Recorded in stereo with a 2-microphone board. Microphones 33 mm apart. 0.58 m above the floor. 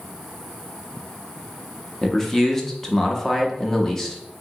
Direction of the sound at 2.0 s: 10° left (ahead or behind).